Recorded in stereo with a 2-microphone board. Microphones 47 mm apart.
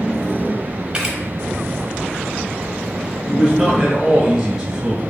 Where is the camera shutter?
20° right (ahead or behind), 0.8 m.